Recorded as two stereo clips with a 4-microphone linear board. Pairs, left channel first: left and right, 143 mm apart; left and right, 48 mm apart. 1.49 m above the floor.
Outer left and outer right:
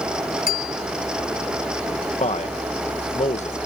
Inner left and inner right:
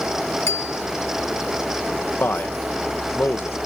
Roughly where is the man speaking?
Left.